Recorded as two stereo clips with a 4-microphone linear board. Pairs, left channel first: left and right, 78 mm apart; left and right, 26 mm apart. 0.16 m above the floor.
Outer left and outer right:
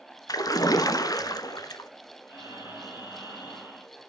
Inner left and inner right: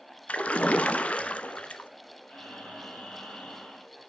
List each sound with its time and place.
0.3 s a splash: 50° left (ahead or behind), 0.8 m
2.3 s breathing: 45° left (ahead or behind), 5.5 m